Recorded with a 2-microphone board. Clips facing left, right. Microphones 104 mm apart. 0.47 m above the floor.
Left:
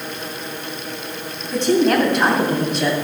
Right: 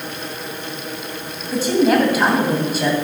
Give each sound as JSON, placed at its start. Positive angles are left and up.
{"t": 1.5, "sound": "a woman speaking", "side_deg": -5, "distance_m": 3.0}